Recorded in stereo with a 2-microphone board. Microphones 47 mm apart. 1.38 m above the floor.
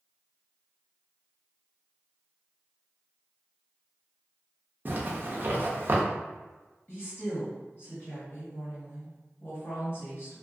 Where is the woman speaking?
50° left (ahead or behind), 1.3 m.